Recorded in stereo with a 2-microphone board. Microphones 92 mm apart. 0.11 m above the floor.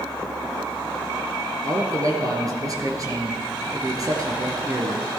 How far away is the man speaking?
About 2 m.